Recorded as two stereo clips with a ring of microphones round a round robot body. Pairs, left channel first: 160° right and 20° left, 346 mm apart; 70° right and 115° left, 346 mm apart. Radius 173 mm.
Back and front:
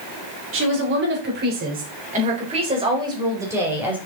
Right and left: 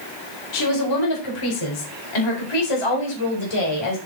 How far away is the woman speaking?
About 4 m.